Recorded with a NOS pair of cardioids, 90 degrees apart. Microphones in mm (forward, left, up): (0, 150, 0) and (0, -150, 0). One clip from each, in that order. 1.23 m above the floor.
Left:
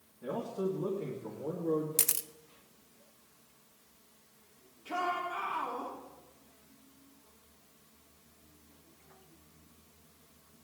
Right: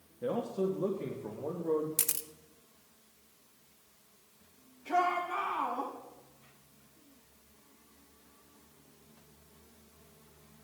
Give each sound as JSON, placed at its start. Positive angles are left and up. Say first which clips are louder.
{"t": 0.2, "sound": "a man speaking", "louder": "right 3 dB", "azimuth_deg": -40, "distance_m": 1.7}
{"t": 2.0, "sound": "a camera shutter", "louder": "left 2 dB", "azimuth_deg": 10, "distance_m": 0.6}
{"t": 4.8, "sound": "a shout", "louder": "right 4 dB", "azimuth_deg": -35, "distance_m": 8.0}